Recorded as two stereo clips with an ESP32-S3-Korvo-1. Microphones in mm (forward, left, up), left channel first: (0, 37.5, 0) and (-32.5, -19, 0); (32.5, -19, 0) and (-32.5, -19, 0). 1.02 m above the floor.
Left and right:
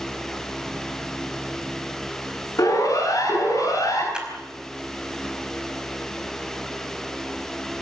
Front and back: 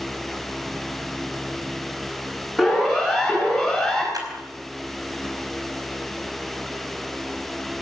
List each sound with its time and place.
2.6 s a siren: 95° left, 9.5 m; by 4.0 s 90° left, 10 m
4.1 s a clap: 165° left, 5 m